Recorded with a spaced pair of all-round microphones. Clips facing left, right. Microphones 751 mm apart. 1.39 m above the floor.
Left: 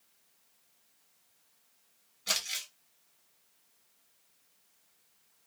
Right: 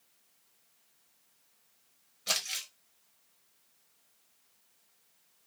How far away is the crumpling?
About 1.3 m.